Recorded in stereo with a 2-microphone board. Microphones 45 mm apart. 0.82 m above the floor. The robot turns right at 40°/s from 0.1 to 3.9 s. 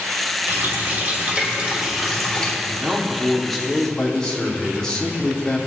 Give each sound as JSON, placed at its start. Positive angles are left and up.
{"t": 0.5, "sound": "a running tap", "azimuth_deg": -75, "distance_m": 3.0}
{"t": 2.6, "sound": "a man speaking", "azimuth_deg": -30, "distance_m": 2.5}